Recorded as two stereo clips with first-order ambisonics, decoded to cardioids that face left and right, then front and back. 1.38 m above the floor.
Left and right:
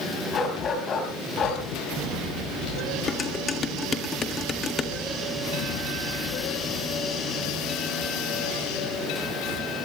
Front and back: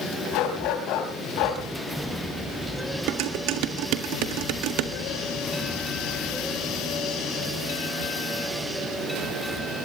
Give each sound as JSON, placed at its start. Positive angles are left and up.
{"t": 0.3, "sound": "a dog barking", "azimuth_deg": 30, "distance_m": 4.5}
{"t": 3.1, "sound": "dishes clattering", "azimuth_deg": 160, "distance_m": 1.7}